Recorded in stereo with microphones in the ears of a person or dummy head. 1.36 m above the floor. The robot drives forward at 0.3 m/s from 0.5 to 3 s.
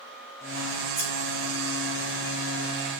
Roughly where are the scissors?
Centre.